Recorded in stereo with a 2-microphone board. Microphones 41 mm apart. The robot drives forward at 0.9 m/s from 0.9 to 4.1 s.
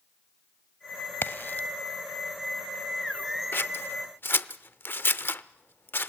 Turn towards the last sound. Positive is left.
turn(degrees=60)  # may be behind; listen again after turning